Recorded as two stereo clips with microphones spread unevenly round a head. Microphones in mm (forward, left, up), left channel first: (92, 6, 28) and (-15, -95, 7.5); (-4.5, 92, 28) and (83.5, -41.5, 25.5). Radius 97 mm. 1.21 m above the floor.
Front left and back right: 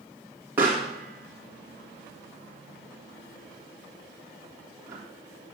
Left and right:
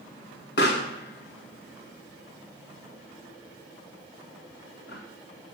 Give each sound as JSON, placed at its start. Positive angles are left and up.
{"t": 0.6, "sound": "a pop", "azimuth_deg": 145, "distance_m": 2.0}